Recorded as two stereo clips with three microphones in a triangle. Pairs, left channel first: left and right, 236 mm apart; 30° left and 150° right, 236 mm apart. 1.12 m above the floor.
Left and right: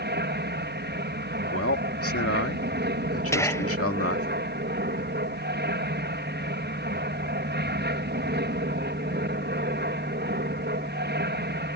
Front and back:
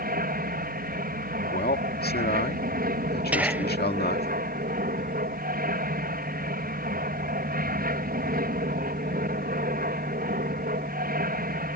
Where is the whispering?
140° left.